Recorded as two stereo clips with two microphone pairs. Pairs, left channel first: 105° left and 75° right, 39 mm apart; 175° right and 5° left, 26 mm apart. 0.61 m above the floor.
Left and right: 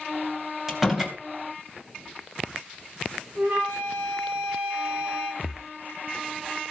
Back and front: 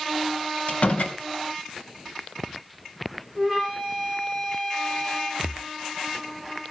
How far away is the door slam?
About 3 m.